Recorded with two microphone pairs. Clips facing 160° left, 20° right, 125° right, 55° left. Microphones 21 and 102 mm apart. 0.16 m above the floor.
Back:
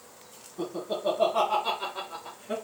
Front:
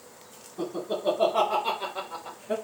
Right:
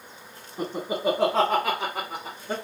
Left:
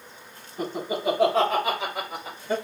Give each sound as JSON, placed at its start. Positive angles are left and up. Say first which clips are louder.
{"t": 0.6, "sound": "laughter", "louder": "front 1 dB, right 1 dB", "azimuth_deg": -120, "distance_m": 1.8}